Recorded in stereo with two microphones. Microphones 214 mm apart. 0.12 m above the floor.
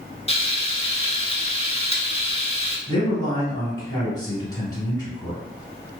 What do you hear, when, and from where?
0.3 s frying: 30° left (ahead or behind), 0.5 m
2.9 s a man speaking: 20° left (ahead or behind), 1.3 m